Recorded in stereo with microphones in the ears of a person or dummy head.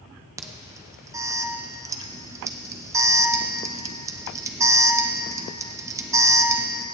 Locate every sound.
0.4 s an alarm: 15° right (ahead or behind), 0.8 m